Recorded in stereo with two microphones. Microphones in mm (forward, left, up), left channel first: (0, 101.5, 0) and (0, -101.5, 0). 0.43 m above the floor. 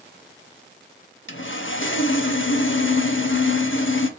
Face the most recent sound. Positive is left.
turn(degrees=75)  # may be behind; listen again after turning